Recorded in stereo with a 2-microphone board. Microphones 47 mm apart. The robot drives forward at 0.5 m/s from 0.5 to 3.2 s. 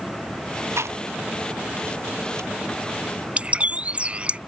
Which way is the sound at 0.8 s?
85° right.